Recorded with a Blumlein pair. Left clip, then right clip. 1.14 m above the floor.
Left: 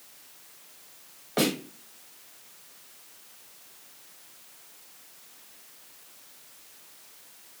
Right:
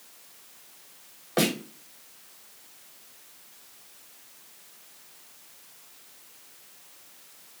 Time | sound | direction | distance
1.4 | a snare drum | 10° right | 1.1 m